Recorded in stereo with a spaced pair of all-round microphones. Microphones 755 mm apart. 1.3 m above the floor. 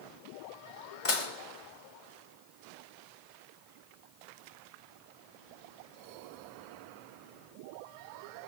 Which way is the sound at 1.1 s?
45° left (ahead or behind).